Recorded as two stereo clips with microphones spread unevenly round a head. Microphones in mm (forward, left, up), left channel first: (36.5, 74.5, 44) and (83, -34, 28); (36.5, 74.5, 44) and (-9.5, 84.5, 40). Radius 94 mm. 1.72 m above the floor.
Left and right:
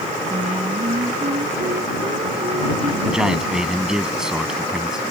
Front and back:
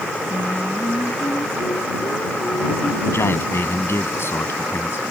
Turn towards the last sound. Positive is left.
turn(degrees=20)